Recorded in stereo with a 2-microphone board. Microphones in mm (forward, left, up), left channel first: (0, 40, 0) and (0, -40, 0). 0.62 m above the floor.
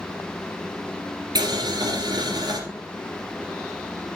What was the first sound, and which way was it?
Boiling, 60° right (ahead or behind).